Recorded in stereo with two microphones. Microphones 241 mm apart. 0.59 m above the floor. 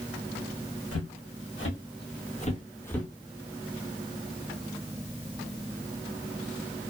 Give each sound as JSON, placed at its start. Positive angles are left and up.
{"t": 0.9, "sound": "footsteps", "side_deg": 70, "distance_m": 1.6}